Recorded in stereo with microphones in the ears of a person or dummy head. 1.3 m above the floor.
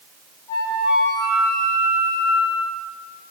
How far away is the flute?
About 6 m.